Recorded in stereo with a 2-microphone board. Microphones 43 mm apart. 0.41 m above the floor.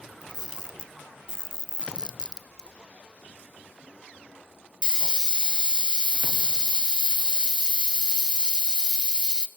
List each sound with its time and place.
0.2 s a camera shutter: 20° right (ahead or behind), 0.6 m